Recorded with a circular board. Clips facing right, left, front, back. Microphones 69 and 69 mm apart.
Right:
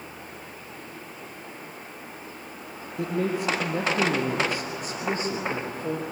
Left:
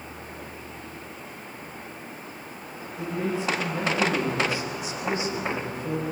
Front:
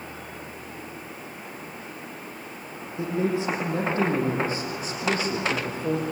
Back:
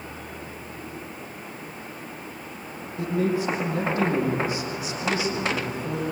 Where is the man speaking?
70° right, 4.5 m; by 6.0 s 40° right, 5.5 m.